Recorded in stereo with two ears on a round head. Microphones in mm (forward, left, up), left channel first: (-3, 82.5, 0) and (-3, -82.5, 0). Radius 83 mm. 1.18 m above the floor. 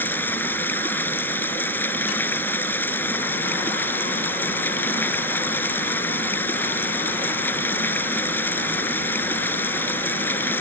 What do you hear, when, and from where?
0.0 s running water: 10° left (ahead or behind)